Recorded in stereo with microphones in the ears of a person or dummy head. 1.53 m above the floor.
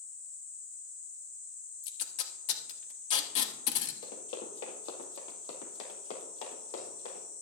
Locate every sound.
1.8 s tape being pulled: 45° left (ahead or behind), 1.4 m
4.0 s running footsteps: 40° left (ahead or behind), 2 m; by 7.2 s 55° left (ahead or behind), 5 m